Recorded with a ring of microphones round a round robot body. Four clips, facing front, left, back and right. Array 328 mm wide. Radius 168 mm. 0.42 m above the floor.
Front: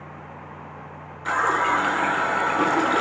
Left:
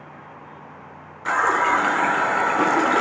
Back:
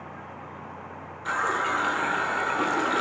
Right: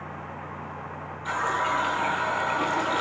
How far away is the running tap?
About 0.9 m.